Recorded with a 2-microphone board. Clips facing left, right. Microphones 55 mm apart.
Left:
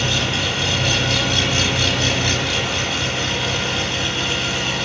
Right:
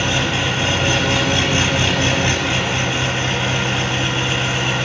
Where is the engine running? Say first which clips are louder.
Right 2 dB; 30° right (ahead or behind), 1.0 m.